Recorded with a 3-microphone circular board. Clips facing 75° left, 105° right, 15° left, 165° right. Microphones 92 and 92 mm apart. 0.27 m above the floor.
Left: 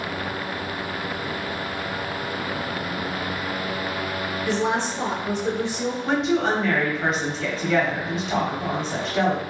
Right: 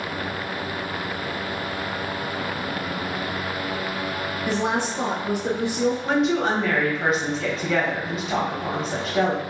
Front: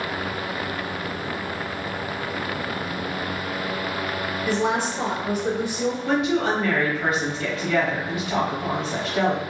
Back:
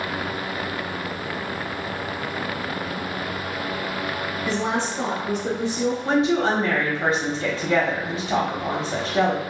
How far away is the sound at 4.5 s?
About 1.0 m.